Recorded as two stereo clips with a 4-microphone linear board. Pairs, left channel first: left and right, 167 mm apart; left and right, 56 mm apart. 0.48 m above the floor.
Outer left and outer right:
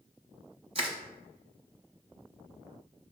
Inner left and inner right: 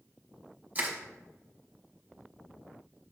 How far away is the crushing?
About 0.8 m.